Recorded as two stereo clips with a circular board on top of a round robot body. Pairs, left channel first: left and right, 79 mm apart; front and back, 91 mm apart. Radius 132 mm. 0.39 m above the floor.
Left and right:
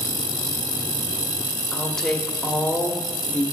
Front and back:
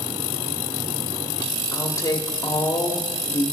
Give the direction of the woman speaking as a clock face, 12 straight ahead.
12 o'clock.